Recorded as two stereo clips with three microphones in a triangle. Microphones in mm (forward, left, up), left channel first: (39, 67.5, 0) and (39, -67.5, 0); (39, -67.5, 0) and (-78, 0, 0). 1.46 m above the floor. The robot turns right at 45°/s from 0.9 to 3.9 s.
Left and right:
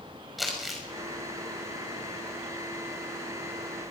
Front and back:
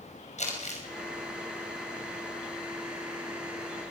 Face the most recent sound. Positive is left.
turn(degrees=135)